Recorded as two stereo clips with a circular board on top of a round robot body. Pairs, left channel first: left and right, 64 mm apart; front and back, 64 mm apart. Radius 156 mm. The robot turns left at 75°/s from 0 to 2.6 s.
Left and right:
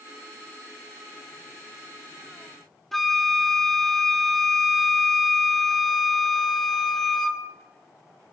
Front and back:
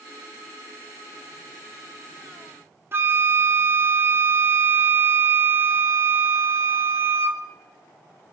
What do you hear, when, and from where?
2.9 s a flute: 175° left, 1.3 m